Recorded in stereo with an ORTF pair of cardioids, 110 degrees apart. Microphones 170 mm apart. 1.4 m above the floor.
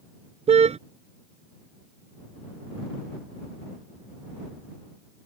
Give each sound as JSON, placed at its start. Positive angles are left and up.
{"t": 0.5, "sound": "a car horn", "azimuth_deg": -40}